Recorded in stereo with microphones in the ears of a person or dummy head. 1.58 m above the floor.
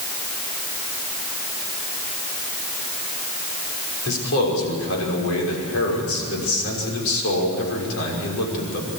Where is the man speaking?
85° left, 6 m.